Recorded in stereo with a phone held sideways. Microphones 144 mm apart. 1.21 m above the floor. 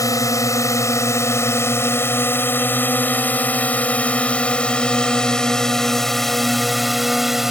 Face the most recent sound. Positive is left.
turn(degrees=-5)  # may be behind; listen again after turning